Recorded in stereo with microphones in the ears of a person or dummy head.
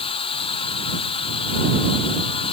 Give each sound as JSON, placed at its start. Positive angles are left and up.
{"t": 0.0, "sound": "a machine running", "side_deg": 30}